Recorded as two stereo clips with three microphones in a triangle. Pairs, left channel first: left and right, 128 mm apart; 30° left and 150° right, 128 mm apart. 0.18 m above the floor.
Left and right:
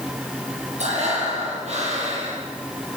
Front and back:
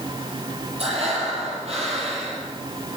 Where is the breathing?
115° right, 7 m.